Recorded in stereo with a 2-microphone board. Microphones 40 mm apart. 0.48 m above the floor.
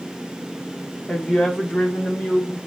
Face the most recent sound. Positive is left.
turn(degrees=30)  # may be behind; listen again after turning